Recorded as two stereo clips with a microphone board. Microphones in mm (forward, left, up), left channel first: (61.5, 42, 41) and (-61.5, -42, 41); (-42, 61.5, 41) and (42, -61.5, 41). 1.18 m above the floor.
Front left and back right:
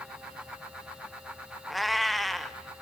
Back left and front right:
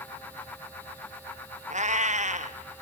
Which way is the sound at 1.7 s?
55° right.